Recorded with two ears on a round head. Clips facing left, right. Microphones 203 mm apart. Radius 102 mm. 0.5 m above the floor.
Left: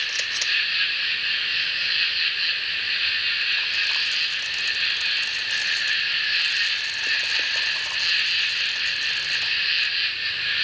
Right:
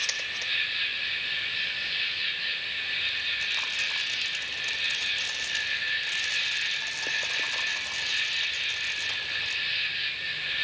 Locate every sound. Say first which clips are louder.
0.0 s an insect: left 3 dB; 80° left, 1.3 m